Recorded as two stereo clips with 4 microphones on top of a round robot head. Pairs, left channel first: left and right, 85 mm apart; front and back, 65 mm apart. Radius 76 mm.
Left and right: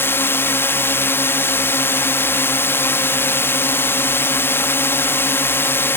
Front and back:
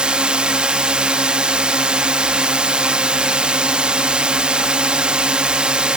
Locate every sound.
0.0 s a drone: 120° left